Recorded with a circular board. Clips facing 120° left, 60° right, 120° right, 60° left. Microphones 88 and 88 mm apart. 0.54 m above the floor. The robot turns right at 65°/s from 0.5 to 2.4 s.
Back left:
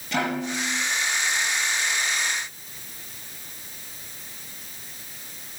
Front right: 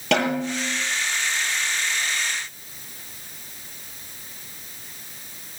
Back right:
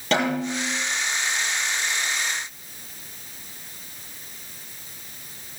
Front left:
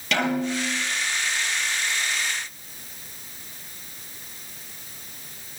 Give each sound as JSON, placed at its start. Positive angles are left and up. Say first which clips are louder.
{"t": 0.1, "sound": "a snare drum", "louder": "front right 4 dB, back right 1 dB", "azimuth_deg": -65, "distance_m": 9.5}